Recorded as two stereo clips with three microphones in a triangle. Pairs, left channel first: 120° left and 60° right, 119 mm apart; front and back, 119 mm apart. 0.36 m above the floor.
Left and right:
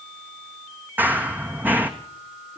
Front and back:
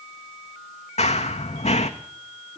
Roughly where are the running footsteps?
Ahead.